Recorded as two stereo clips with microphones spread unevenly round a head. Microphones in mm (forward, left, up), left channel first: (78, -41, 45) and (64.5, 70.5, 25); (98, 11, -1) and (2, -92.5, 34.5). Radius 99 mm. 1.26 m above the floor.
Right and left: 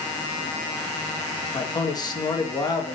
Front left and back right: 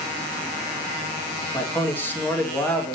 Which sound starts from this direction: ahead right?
A man speaking, at 1.5 s.